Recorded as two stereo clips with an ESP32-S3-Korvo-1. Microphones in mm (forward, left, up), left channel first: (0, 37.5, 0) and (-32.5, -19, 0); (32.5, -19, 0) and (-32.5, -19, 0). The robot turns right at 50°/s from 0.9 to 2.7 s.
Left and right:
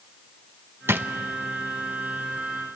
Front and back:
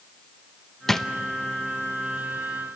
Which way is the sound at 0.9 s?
85° right.